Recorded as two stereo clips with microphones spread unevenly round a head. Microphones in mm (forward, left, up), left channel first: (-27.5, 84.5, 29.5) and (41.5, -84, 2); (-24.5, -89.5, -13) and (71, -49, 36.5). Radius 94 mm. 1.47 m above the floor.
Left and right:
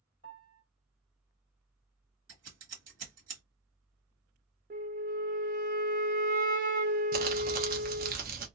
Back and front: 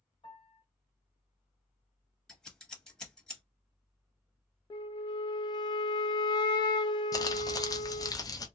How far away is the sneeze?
I don't hear a sneeze.